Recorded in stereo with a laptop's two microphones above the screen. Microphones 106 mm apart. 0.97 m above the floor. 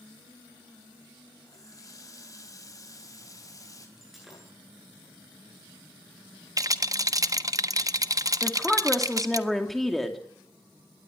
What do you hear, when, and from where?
1.5 s a running tap: 35° left (ahead or behind), 4.5 m
4.0 s breaking glass: centre (ahead or behind), 9 m
6.6 s a rattle: 35° right (ahead or behind), 1.2 m
8.4 s a woman speaking: centre (ahead or behind), 2.5 m